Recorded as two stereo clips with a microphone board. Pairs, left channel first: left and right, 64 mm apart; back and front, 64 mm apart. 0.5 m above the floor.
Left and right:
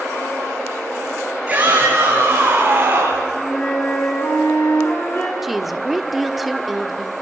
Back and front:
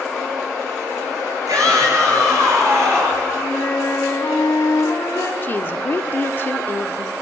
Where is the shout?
25° right, 9 m; by 3.2 s 30° right, 8.5 m.